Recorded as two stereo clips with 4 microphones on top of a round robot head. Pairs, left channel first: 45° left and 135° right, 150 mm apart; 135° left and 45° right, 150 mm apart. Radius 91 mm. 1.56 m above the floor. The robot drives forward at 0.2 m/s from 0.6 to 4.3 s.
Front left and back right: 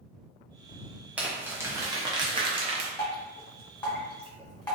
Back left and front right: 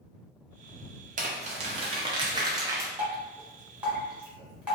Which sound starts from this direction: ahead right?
Crumpling, at 1.2 s.